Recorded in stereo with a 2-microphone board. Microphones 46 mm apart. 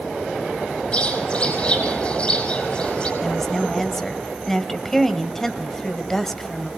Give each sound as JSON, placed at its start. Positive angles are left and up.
{"t": 0.9, "sound": "a bird", "side_deg": 25, "distance_m": 5.0}
{"t": 3.2, "sound": "a woman speaking", "side_deg": 10, "distance_m": 1.4}